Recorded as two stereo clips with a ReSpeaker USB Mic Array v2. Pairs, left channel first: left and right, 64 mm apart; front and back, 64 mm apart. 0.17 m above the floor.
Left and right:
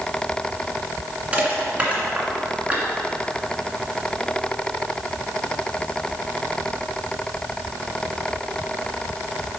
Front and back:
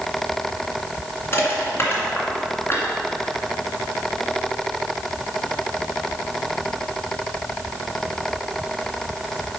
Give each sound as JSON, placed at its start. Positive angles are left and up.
{"t": 1.3, "sound": "crushing", "azimuth_deg": -30, "distance_m": 2.0}